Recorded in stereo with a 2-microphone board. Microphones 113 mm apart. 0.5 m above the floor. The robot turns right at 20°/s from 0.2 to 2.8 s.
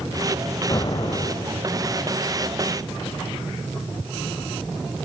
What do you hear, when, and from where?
0.7 s an explosion: 40° left (ahead or behind), 0.6 m; by 1.8 s 60° left (ahead or behind), 0.6 m